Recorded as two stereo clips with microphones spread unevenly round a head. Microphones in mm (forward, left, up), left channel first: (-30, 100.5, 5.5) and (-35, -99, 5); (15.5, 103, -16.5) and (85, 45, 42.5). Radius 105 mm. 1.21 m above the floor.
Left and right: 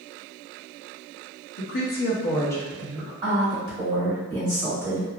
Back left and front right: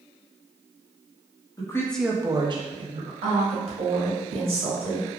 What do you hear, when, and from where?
1.6 s a woman speaking: 105° left, 0.9 m; by 3.1 s 10° right, 1.5 m
3.2 s a woman speaking: 20° right, 2.0 m